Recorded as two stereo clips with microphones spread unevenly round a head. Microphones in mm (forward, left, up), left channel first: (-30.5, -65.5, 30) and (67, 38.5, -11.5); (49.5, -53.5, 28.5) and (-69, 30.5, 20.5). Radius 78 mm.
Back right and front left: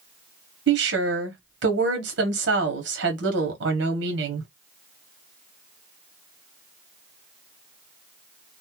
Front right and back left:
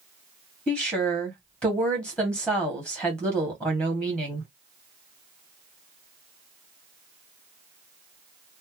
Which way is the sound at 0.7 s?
45° left.